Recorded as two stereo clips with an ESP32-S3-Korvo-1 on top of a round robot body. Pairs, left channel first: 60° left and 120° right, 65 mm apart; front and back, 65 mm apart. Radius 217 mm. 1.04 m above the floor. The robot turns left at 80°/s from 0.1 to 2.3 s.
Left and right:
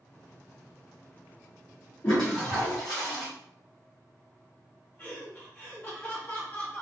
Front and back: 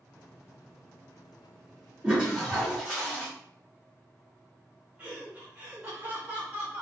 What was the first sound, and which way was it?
A toilet flushing, 110° left.